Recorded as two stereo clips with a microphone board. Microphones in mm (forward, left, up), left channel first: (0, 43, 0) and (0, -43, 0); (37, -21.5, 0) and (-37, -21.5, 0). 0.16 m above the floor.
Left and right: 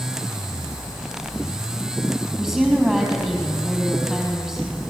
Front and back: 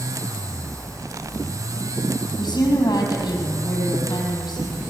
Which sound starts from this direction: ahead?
A woman speaking, at 2.4 s.